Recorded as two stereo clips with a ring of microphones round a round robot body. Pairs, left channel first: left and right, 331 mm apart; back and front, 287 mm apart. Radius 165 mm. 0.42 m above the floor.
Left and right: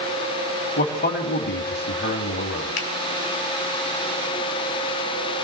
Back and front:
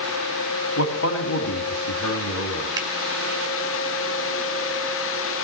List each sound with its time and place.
0.8 s a man speaking: 150° left, 2 m
2.8 s a finger snap: 75° left, 2 m